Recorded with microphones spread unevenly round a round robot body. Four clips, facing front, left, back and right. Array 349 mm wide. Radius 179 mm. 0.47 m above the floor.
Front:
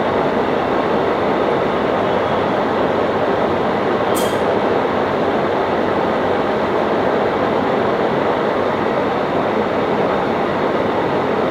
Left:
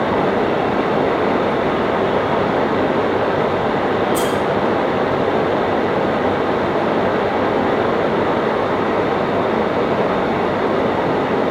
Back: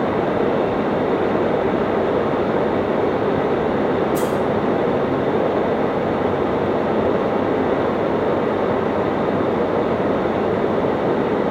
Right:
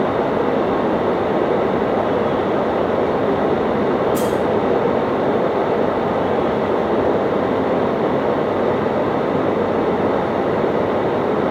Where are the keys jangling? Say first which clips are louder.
Even, front 2 dB; 20° right, 5 m.